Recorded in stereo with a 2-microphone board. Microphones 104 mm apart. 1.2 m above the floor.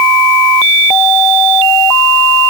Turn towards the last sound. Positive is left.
No sound to turn to.